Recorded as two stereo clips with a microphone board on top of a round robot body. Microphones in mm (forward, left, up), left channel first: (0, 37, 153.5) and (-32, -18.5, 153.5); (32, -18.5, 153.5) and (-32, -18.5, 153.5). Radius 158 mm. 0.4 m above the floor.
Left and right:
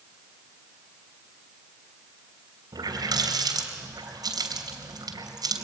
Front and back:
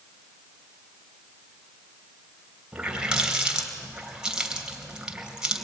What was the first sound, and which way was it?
A running tap, 105° right.